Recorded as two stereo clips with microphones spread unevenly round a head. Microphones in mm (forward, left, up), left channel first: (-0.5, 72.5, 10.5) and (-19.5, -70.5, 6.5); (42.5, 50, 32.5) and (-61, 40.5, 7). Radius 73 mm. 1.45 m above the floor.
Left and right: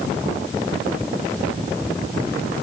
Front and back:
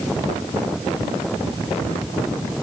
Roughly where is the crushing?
No crushing in this recording.